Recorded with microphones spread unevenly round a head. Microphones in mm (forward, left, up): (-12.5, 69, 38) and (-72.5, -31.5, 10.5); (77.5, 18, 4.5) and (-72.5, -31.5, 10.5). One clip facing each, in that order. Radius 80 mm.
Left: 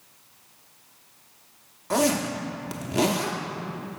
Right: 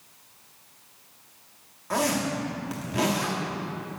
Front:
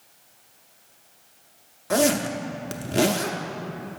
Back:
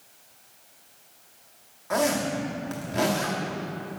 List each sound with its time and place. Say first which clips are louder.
1.9 s a zipper: left 3 dB, front 3 dB; 45° left, 0.6 m